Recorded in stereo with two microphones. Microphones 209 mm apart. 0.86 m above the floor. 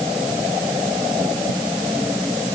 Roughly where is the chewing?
I don't hear chewing.